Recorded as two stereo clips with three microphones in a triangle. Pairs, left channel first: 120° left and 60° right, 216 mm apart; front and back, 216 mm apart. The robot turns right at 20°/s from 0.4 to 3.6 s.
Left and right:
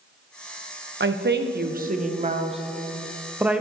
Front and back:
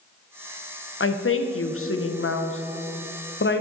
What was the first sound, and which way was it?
A woman speaking, 25° right.